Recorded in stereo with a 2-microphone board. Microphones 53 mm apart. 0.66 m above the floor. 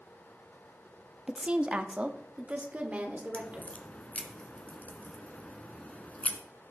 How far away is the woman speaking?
About 0.7 m.